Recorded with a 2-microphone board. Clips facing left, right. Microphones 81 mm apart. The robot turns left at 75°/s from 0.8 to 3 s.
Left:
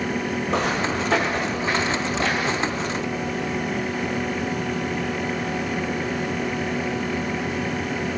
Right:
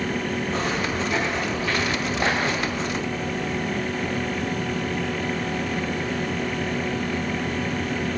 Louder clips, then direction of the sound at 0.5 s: Left 5 dB; 70° left (ahead or behind).